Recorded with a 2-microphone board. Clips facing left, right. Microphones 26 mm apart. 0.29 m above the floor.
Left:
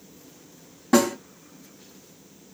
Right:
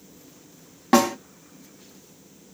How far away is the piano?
No piano in this recording.